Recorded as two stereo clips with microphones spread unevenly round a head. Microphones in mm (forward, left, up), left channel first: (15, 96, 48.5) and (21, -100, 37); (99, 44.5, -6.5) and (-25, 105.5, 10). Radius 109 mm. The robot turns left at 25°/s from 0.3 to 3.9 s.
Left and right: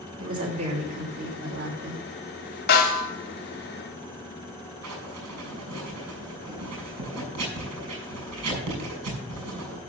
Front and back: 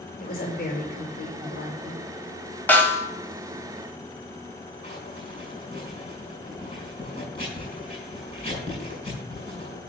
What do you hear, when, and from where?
0.2 s a woman speaking: 20° right, 4.5 m; by 2.0 s 65° right, 4.5 m
2.7 s a snare drum: 55° left, 2.5 m; by 3.1 s 45° left, 2.5 m
4.8 s writing: 95° right, 6 m